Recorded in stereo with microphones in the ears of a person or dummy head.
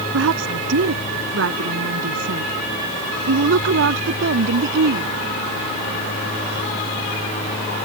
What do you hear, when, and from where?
0.1 s a woman speaking: 75° right (ahead or behind); by 5.1 s 65° right (ahead or behind)